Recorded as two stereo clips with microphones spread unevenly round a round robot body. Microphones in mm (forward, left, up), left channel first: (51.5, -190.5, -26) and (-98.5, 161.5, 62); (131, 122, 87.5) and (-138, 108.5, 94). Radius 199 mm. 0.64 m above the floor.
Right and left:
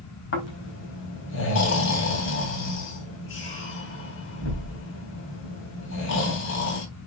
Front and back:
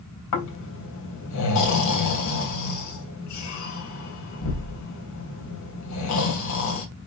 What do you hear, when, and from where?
0.3 s snoring: 10° right, 3.5 m